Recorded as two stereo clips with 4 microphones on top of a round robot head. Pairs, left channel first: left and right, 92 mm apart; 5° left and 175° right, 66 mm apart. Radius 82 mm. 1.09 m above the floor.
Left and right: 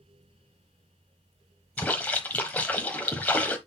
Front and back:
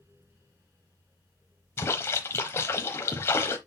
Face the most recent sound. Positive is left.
turn(degrees=30)